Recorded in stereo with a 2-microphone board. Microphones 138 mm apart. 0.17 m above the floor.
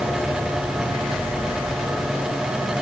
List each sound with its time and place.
Only background noise.